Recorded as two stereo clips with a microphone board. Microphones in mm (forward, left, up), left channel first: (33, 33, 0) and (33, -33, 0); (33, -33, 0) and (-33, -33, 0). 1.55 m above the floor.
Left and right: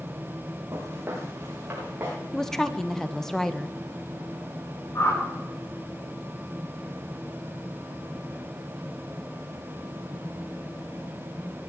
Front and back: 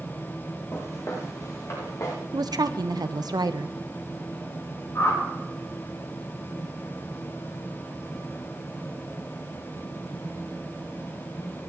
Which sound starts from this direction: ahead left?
A whoosh, at 5.0 s.